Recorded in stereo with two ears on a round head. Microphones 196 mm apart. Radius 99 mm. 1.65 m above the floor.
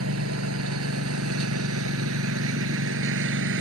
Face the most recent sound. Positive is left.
turn(degrees=-65)  # may be behind; listen again after turning